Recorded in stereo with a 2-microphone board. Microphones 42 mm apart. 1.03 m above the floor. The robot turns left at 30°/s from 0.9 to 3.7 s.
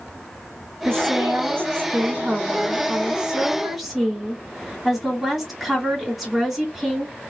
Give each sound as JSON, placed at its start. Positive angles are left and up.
{"t": 0.8, "sound": "a woman speaking", "azimuth_deg": -90, "distance_m": 2.5}